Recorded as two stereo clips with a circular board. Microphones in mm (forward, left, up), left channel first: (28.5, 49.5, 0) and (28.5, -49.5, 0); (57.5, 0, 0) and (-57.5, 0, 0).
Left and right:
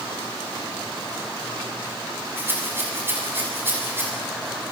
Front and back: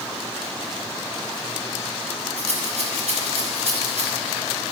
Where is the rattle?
160° right, 7 m.